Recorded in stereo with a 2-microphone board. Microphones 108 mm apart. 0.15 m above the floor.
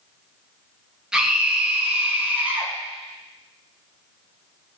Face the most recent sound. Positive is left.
turn(degrees=-15)  # may be behind; listen again after turning